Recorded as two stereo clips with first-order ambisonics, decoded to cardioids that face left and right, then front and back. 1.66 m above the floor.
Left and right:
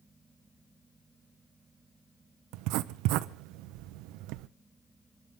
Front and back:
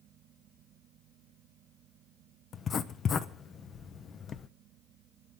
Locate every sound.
2.5 s writing: 60° right, 0.8 m